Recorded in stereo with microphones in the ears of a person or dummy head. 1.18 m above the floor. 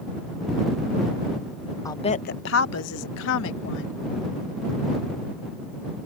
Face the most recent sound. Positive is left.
turn(degrees=65)  # may be behind; listen again after turning